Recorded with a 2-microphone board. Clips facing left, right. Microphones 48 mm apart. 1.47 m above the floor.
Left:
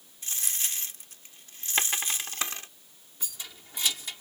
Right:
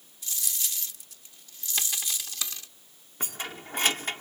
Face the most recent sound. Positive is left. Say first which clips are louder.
# right 8 dB
turn(degrees=-50)  # may be behind; listen again after turning